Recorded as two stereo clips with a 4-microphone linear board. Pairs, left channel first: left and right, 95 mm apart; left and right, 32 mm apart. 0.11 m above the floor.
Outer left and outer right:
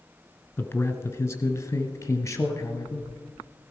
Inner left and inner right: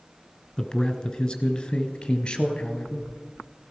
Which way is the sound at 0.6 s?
25° left (ahead or behind).